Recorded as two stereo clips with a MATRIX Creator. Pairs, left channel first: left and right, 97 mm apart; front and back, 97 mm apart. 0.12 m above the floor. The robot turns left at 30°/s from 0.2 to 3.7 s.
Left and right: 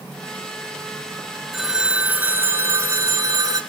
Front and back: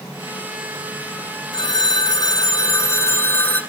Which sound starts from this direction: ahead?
A phone ringing, at 1.5 s.